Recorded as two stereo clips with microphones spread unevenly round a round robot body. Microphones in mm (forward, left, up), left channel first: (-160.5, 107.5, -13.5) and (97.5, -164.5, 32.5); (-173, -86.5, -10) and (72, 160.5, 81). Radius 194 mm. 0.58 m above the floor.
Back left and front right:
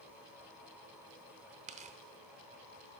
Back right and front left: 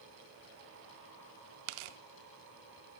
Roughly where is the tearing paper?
Ahead left.